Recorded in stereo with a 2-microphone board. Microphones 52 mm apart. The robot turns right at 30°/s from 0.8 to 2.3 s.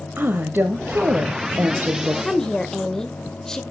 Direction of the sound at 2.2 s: 10° left (ahead or behind).